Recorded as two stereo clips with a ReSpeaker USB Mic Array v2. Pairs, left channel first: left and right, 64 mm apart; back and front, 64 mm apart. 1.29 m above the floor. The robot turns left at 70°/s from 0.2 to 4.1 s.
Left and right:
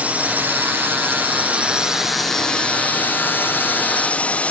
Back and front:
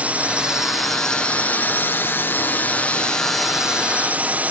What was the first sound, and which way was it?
A drone, 45° right.